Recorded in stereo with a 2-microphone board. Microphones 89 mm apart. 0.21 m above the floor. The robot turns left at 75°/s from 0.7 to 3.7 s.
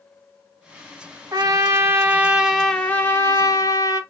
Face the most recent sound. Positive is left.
turn(degrees=95)